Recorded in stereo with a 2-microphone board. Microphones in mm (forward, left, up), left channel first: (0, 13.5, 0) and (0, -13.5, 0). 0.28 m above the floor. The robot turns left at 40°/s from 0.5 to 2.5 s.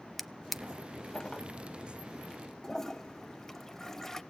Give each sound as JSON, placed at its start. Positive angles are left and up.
{"t": 0.2, "sound": "a drawer", "side_deg": 0, "distance_m": 0.7}
{"t": 2.6, "sound": "a toilet flushing", "side_deg": 15, "distance_m": 0.5}